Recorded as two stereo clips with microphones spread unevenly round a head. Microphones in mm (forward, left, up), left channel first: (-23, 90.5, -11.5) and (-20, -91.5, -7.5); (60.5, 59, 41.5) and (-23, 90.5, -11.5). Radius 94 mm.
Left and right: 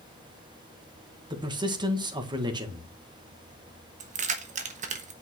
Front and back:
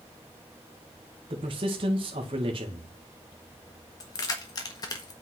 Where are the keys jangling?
40° right, 1.3 m.